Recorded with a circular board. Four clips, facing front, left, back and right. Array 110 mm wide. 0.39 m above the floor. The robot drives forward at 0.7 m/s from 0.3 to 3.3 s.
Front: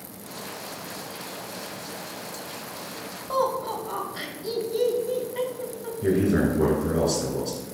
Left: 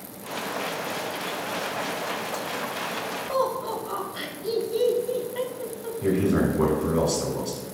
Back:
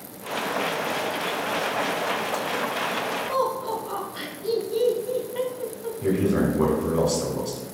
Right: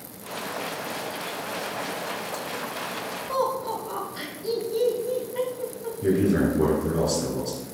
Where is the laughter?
155° left, 0.9 m.